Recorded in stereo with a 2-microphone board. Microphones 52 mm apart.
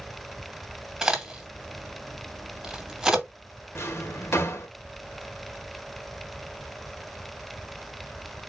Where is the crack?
15° right (ahead or behind), 2 m.